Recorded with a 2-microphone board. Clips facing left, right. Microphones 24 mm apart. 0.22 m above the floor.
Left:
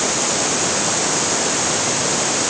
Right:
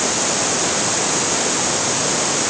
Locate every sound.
Only background noise.